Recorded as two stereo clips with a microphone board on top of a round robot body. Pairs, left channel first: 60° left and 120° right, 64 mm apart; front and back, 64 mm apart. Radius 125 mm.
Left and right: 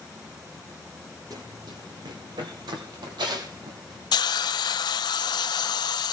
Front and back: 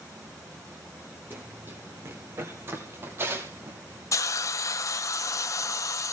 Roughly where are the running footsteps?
Behind right.